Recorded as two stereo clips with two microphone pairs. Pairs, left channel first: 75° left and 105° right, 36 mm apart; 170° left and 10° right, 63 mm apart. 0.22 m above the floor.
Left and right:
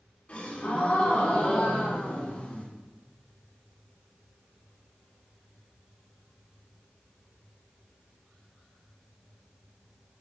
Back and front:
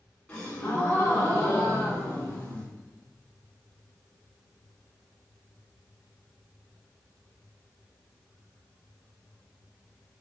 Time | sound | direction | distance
0.3 | a gasp | 105° left | 2.5 m